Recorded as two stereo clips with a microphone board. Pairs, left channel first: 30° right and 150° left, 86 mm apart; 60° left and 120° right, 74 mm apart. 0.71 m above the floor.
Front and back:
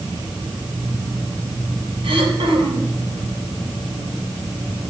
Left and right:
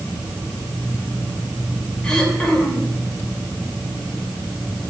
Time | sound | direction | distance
2.0 | throat clearing | 140° left | 2 m